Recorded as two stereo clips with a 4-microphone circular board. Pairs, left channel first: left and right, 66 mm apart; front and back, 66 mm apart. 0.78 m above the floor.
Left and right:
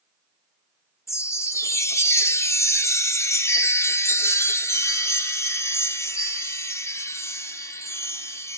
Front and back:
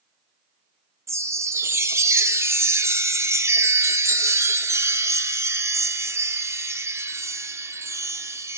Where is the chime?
135° left, 0.7 m.